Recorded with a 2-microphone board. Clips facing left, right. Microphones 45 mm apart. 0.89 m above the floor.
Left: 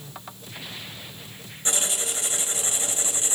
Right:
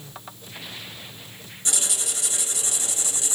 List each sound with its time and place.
1.6 s writing: 35° left (ahead or behind), 0.9 m